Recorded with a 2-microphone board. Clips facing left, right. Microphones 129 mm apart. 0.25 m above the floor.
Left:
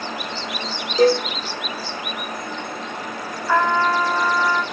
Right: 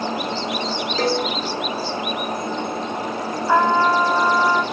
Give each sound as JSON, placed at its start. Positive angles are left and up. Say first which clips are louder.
{"t": 1.0, "sound": "a cowbell", "louder": "left 6 dB", "side_deg": 15, "distance_m": 7.0}
{"t": 3.5, "sound": "a trumpet", "louder": "right 2 dB", "side_deg": -20, "distance_m": 0.7}